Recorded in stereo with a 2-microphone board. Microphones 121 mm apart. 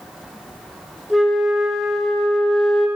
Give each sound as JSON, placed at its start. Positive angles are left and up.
{"t": 1.1, "sound": "a flute", "side_deg": 0, "distance_m": 1.0}